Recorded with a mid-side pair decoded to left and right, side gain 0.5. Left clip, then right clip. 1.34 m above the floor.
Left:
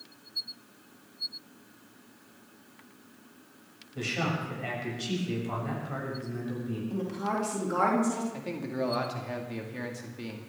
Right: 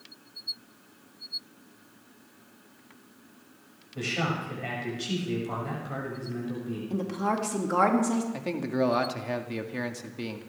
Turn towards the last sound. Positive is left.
turn(degrees=-35)